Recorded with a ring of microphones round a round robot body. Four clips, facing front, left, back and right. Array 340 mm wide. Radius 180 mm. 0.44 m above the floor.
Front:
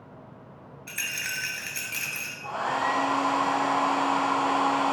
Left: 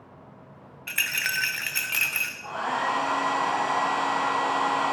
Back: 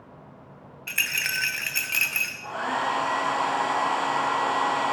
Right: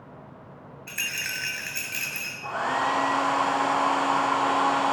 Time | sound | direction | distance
0.9 | a rattle | 125° left | 0.7 m
2.4 | a hair dryer | 95° right | 1.5 m